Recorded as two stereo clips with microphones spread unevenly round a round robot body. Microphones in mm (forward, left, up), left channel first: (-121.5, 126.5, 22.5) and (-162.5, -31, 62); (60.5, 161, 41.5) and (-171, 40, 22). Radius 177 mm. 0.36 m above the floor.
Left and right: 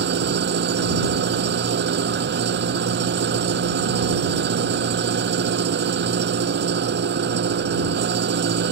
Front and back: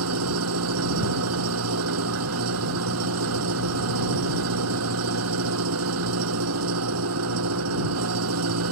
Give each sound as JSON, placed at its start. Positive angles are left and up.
{"t": 0.0, "sound": "an engine running", "azimuth_deg": -100}